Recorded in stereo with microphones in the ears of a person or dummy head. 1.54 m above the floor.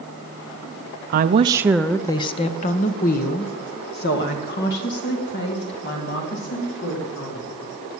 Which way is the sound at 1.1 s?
50° right (ahead or behind).